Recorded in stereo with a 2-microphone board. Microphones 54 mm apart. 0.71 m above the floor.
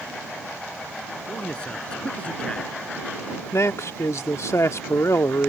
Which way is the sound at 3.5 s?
65° left (ahead or behind).